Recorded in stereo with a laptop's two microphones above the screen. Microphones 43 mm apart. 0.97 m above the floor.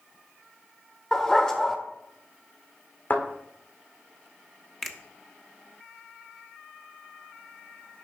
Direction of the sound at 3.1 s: 45° left (ahead or behind).